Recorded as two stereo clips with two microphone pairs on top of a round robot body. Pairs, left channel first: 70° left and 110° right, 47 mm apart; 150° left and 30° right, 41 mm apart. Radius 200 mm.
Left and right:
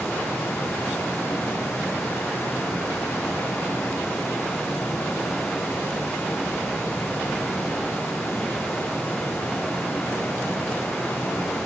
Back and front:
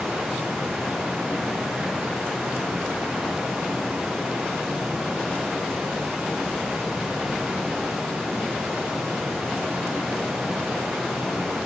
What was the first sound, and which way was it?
Running water, 60° left.